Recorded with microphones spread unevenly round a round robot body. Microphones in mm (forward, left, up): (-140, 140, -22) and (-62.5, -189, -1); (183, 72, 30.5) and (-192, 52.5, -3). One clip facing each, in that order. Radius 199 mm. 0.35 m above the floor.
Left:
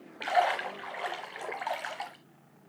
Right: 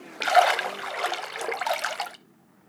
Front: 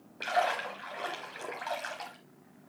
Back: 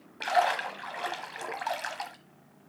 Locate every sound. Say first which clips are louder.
0.2 s a splash: right 7 dB, back 3 dB; 100° right, 0.9 m